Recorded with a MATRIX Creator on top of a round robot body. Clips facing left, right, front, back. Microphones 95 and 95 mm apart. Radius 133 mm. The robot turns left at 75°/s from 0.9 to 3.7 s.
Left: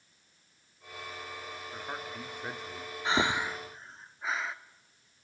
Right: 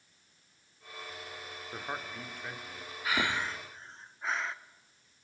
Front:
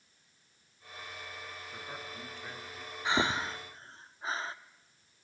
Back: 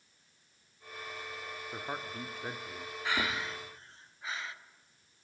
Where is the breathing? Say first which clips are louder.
Left 3 dB, front 4 dB; 55° left, 1.1 m; by 4.5 s 5° left, 1.1 m.